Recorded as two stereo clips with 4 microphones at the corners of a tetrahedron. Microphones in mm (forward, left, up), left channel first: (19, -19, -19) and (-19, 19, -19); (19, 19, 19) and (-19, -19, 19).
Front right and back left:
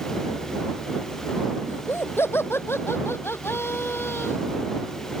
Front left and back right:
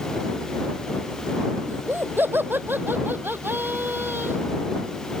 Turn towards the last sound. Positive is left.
turn(degrees=-85)